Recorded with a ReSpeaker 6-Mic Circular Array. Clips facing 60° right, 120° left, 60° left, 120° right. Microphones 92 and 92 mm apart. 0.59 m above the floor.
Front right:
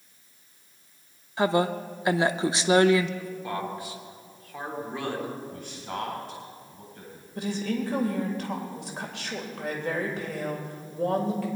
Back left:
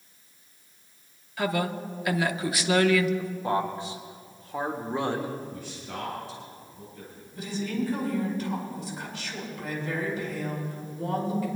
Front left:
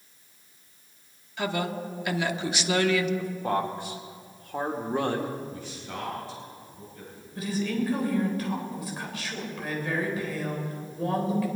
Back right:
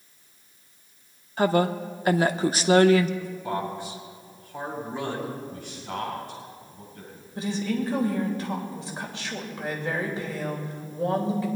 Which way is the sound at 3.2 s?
65° left.